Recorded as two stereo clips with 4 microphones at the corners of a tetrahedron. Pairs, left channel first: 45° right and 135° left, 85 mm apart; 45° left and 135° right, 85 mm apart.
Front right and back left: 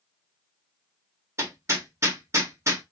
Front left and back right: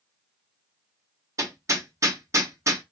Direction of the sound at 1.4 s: Straight behind.